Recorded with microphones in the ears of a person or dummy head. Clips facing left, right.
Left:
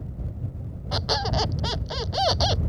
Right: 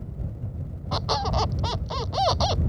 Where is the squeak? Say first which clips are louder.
Even; 10° left (ahead or behind).